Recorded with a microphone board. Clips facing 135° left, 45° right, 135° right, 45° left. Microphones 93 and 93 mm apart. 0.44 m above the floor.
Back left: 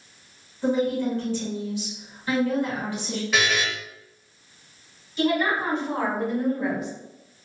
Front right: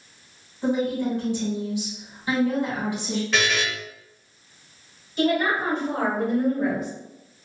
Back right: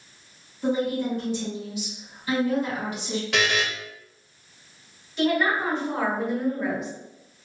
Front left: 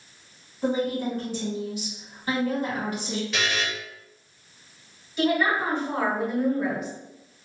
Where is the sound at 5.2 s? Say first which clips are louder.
Front right 1 dB, even; 40° right, 1.8 m.